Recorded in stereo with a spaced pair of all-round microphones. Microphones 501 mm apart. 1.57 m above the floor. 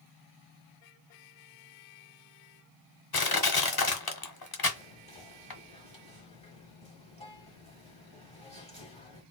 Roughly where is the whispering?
Centre.